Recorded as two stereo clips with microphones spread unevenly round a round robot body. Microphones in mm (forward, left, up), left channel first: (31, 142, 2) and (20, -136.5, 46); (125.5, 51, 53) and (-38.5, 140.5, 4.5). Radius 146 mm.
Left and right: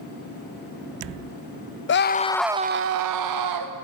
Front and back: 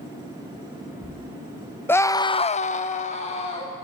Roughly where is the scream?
Ahead left.